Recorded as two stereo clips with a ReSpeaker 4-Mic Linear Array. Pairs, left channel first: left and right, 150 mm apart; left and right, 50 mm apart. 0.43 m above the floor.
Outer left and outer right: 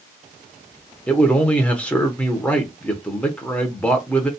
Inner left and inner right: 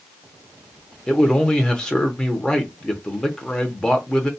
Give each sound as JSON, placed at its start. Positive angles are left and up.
{"t": 1.1, "sound": "a man speaking", "side_deg": 10, "distance_m": 0.8}